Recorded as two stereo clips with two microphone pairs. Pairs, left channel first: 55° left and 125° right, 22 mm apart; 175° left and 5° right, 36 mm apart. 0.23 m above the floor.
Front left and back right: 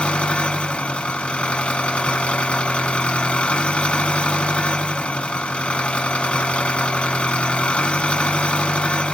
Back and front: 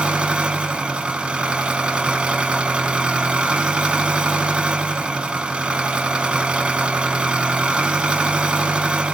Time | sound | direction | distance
0.0 | an engine running | 45° left | 0.8 m